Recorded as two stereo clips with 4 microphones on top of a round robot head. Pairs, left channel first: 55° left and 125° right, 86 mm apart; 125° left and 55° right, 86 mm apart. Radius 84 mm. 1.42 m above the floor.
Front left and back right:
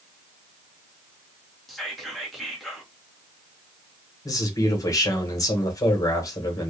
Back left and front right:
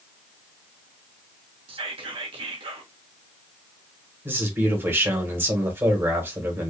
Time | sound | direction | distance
1.7 | whispering | 35° right | 1.2 m
4.2 | a man speaking | 10° left | 1.5 m